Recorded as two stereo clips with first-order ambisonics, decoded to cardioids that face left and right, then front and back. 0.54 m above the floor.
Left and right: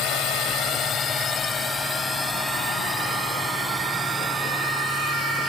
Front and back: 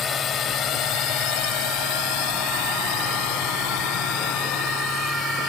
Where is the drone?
60° left; by 5.5 s 10° right.